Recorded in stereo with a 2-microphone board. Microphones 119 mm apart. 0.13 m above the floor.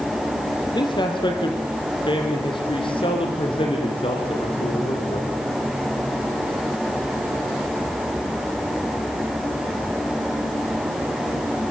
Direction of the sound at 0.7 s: 40° left (ahead or behind).